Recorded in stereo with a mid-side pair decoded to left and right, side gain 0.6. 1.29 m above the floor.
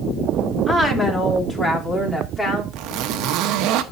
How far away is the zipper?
About 1.2 m.